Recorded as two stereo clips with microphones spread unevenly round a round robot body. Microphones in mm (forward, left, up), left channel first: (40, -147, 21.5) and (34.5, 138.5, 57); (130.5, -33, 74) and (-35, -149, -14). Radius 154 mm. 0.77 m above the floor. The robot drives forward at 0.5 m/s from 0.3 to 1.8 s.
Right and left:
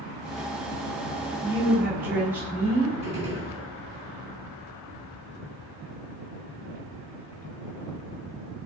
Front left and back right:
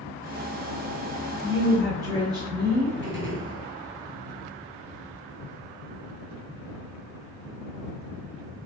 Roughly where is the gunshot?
Behind.